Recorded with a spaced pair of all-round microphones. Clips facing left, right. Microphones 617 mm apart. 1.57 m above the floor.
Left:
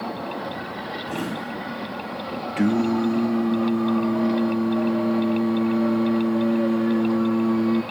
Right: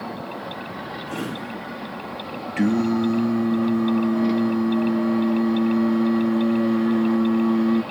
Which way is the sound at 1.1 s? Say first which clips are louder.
Left 1 dB; 5° left (ahead or behind).